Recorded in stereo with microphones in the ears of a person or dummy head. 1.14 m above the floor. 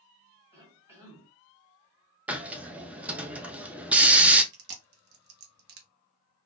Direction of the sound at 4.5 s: 55° right (ahead or behind).